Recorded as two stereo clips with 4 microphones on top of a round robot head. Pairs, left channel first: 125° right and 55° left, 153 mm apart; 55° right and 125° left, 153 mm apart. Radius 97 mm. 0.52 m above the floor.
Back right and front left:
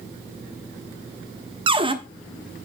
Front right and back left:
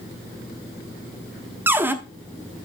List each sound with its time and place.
1.7 s a cupboard door: 60° left, 1.1 m